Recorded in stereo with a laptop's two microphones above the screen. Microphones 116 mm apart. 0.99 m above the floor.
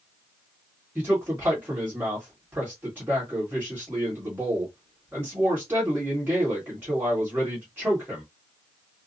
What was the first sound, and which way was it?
A man speaking, 15° right (ahead or behind).